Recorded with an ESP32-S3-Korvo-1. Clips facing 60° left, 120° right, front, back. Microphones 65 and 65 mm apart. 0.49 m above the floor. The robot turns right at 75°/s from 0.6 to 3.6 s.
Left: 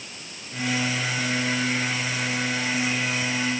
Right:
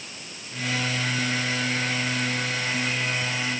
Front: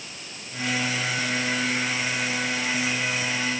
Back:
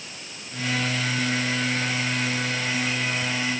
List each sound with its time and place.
Only background noise.